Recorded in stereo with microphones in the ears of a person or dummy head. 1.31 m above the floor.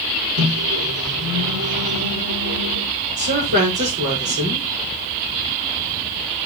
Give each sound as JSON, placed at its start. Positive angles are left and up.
{"t": 0.4, "sound": "a microwave", "side_deg": -85, "distance_m": 3.0}
{"t": 3.2, "sound": "a woman speaking", "side_deg": -45, "distance_m": 5.0}